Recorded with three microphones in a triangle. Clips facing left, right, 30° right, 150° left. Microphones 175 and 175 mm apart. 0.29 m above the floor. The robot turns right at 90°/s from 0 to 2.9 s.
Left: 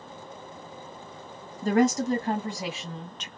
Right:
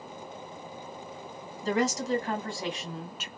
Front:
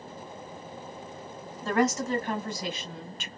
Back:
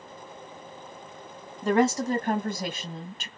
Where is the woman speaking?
75° left, 1.5 m; by 3.3 s 170° right, 1.5 m.